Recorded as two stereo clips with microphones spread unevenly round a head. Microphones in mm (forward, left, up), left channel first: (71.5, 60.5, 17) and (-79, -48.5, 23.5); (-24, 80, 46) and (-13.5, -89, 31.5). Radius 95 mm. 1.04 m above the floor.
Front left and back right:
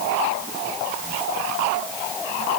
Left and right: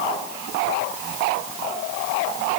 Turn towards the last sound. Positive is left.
No sound to turn to.